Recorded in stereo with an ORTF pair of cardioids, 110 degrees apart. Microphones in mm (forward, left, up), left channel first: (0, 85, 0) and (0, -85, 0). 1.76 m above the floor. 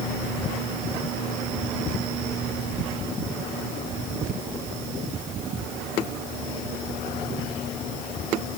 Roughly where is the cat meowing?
No cat meowing in this recording.